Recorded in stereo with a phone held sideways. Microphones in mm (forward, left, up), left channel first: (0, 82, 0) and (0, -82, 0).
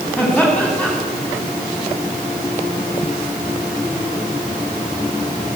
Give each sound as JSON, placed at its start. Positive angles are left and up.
{"t": 0.2, "sound": "laughter", "side_deg": 5, "distance_m": 7.5}